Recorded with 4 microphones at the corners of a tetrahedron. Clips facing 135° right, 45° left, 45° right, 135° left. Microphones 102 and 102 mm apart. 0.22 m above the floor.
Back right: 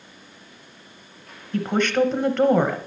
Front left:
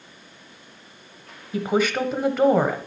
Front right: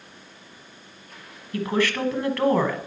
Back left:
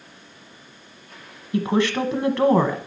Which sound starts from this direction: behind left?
A woman speaking, at 1.5 s.